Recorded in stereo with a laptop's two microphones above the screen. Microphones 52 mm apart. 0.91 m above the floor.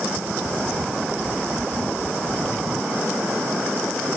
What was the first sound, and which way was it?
Only background noise.